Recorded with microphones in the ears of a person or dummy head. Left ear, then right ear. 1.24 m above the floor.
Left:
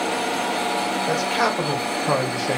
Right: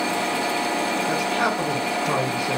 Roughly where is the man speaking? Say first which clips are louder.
Left 3 dB; left.